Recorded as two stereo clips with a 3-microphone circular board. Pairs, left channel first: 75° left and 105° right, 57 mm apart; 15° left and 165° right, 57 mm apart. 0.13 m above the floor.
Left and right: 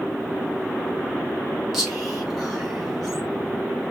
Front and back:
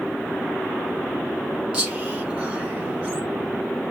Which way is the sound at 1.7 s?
175° right.